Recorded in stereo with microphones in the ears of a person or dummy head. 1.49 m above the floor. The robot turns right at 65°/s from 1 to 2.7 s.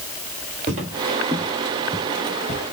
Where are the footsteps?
45° right (ahead or behind), 2 m; by 2.7 s 40° left (ahead or behind), 2.5 m.